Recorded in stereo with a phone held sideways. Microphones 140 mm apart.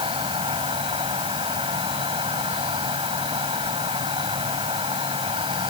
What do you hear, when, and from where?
0.0 s an insect: 40° right (ahead or behind)